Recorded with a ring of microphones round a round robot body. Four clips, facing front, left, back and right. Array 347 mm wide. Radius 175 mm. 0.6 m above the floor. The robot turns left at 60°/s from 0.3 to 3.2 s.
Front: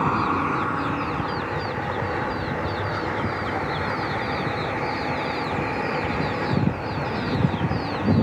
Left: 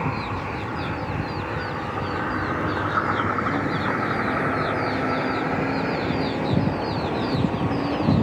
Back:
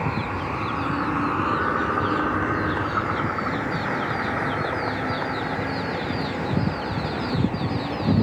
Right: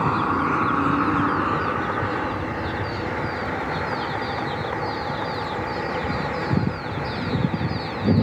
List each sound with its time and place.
0.0 s a vehicle: 45° right; by 8.2 s 95° left